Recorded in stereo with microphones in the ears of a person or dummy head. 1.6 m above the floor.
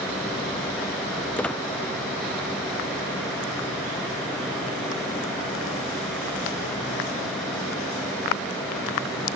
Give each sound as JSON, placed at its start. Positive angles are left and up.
{"t": 1.4, "sound": "a squeak", "side_deg": 10}